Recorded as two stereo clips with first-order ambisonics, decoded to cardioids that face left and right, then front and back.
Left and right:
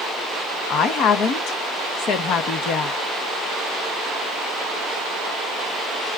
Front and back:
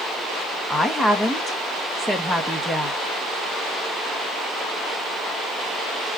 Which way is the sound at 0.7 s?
80° left.